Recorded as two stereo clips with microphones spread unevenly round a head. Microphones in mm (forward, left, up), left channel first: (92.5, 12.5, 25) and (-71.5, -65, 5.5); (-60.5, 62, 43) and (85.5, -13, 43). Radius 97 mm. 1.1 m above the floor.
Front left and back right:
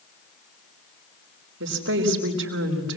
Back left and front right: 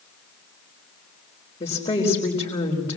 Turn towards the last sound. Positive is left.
turn(degrees=-145)